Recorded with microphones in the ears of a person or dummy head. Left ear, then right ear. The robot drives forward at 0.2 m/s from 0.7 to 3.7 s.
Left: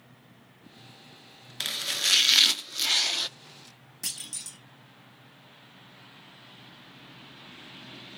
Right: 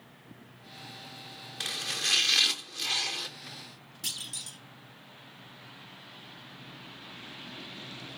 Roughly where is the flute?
I don't hear a flute.